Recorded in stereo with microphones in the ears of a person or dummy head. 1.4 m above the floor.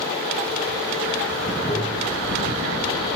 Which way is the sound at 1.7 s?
50° left (ahead or behind).